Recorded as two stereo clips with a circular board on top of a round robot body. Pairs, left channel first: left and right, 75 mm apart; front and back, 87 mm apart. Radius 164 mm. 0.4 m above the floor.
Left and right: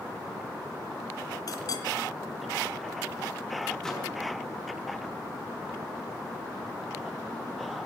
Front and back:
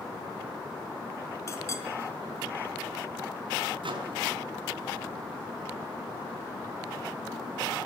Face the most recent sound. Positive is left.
turn(degrees=175)